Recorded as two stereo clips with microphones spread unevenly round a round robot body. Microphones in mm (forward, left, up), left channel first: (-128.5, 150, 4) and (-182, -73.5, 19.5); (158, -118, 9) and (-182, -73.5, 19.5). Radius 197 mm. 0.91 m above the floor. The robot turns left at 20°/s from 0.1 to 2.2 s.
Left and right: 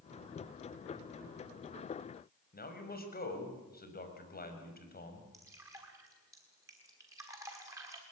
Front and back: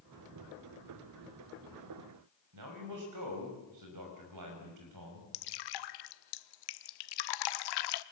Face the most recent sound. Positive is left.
turn(degrees=-20)